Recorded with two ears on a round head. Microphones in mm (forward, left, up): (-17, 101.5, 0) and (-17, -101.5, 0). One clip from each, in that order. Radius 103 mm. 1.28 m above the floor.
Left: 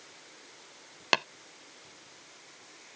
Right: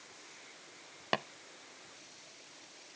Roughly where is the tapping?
Left.